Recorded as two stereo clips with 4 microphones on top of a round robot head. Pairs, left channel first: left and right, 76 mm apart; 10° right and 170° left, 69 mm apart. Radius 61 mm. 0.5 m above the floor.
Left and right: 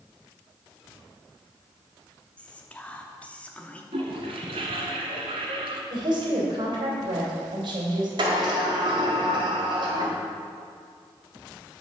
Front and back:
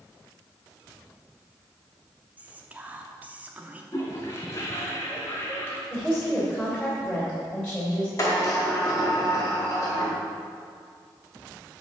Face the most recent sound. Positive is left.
turn(degrees=-65)